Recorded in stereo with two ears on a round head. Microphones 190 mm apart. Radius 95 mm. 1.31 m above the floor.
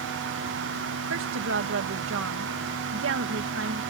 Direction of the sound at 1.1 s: 65° right (ahead or behind).